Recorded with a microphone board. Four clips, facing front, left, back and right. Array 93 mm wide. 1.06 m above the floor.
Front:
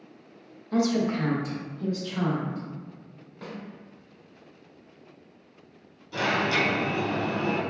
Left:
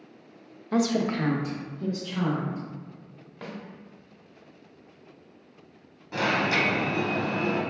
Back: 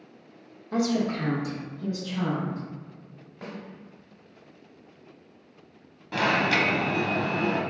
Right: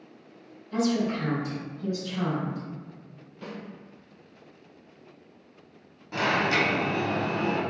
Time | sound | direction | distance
0.7 | a woman speaking | 100° left | 0.6 m
3.4 | a snare drum | 100° left | 1.1 m
6.1 | an alarm | straight behind | 0.7 m